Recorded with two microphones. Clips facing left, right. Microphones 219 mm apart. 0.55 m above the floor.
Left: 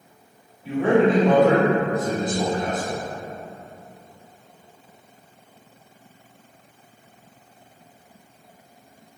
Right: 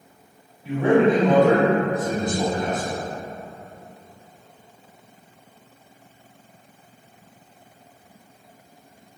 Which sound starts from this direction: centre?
A man speaking, at 0.6 s.